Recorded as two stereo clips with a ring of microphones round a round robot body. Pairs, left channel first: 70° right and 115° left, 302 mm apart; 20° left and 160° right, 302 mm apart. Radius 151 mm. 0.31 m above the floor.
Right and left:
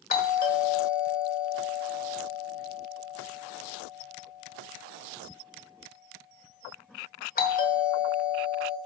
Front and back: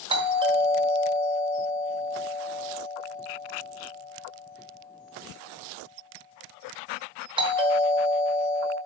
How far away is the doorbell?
About 1.5 m.